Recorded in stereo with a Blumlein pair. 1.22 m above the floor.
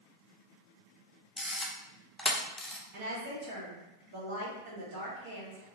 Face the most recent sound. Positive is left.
turn(degrees=-45)